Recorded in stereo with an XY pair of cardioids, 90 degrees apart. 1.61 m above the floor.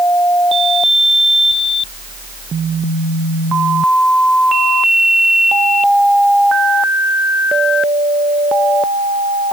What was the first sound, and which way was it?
Only background noise.